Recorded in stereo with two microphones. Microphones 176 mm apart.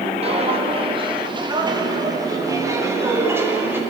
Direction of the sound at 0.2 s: 35° right (ahead or behind).